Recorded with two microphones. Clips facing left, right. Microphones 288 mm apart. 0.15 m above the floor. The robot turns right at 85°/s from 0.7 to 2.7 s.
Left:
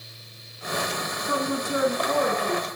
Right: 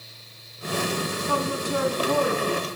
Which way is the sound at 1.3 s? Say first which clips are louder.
Left 2 dB; 20° left (ahead or behind).